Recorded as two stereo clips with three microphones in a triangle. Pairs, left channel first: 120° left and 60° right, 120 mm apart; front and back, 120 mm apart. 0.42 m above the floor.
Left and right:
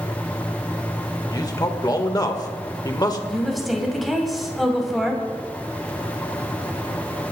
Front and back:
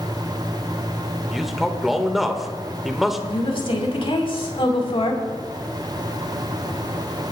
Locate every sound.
1.3 s a man speaking: 90° left, 1.3 m
3.3 s a woman speaking: 30° left, 3 m